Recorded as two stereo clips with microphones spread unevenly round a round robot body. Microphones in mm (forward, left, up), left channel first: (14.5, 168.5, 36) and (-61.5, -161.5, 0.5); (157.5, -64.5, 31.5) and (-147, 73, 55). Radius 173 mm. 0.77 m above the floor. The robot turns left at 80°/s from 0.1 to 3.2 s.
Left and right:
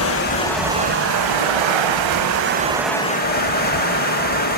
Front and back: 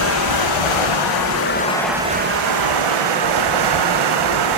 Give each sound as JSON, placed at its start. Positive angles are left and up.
{"t": 0.0, "sound": "running water", "azimuth_deg": 25, "distance_m": 1.4}